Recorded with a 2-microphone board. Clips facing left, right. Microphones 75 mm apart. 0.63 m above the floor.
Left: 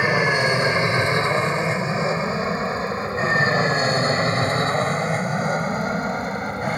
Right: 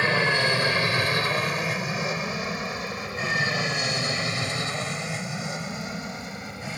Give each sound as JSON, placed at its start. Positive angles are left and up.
{"t": 0.0, "sound": "an aircraft", "side_deg": 15}